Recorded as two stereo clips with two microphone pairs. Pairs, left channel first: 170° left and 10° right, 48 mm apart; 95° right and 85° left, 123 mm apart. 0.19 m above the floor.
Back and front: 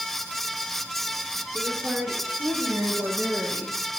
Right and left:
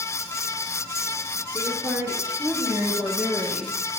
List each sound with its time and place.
1.5 s a woman speaking: 20° left, 4.5 m; by 3.8 s straight ahead, 6 m